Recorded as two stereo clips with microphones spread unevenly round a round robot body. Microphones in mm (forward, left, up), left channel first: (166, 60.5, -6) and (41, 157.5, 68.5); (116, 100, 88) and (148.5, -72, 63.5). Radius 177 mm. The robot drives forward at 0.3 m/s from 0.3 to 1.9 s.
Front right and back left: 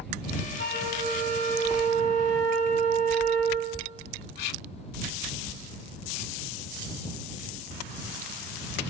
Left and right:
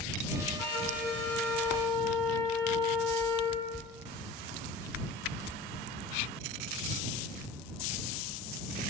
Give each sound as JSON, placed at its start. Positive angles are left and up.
{"t": 0.6, "sound": "a flute", "azimuth_deg": 145, "distance_m": 6.0}